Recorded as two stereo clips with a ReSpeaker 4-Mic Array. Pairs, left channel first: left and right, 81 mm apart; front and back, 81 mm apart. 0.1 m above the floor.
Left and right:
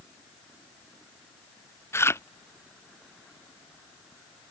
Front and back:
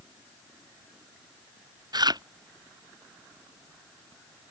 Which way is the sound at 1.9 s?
150° left.